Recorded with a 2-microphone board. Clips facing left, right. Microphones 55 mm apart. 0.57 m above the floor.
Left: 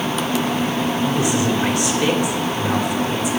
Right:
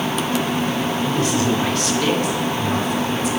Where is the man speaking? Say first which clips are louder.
Left 1 dB; 15° left (ahead or behind), 1.8 m.